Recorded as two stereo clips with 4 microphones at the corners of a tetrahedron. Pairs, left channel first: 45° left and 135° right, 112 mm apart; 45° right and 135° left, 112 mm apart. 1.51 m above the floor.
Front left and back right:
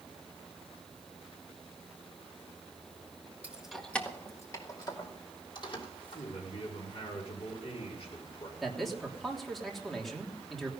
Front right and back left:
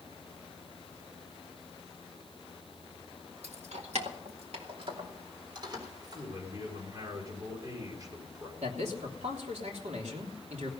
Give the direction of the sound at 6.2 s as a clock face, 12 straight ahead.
9 o'clock.